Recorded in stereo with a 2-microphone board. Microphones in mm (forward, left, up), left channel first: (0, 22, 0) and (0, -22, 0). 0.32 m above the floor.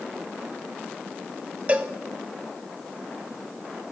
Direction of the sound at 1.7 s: 30° right (ahead or behind).